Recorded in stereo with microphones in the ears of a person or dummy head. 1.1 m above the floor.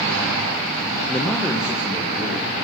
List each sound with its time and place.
1.1 s a man speaking: 10° left (ahead or behind), 0.7 m; by 2.6 s 5° right (ahead or behind), 2.5 m